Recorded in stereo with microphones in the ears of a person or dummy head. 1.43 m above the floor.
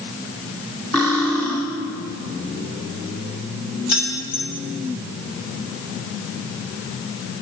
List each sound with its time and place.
0.9 s cutlery clinking: 10° left (ahead or behind), 1.9 m
3.9 s keys jangling: 55° left (ahead or behind), 2.5 m